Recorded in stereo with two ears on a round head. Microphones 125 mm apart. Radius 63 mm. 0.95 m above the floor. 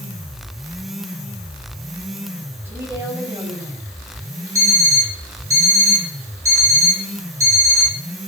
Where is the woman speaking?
15° right (ahead or behind), 4 m.